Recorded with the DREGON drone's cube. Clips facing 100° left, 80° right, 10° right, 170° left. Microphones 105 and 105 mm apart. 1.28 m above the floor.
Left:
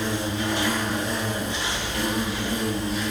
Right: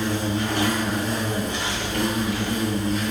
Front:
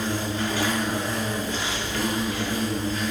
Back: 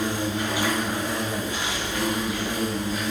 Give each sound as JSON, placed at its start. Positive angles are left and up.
{"t": 0.0, "sound": "an insect", "azimuth_deg": -115, "distance_m": 4.0}